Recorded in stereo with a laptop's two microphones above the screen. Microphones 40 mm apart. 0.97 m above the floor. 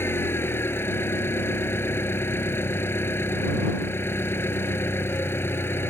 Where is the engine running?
75° left (ahead or behind).